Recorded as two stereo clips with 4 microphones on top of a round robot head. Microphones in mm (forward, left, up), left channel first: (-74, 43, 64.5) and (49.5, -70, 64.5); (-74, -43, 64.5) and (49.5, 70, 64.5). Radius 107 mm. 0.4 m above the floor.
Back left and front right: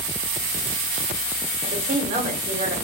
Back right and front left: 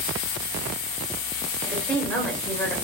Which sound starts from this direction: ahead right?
A woman speaking, at 1.6 s.